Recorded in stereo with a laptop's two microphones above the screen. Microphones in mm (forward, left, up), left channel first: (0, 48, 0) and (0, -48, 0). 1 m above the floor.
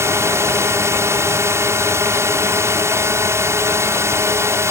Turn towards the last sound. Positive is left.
turn(degrees=-25)  # may be behind; listen again after turning